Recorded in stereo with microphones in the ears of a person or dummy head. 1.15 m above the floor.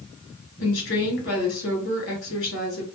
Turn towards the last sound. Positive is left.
turn(degrees=70)  # may be behind; listen again after turning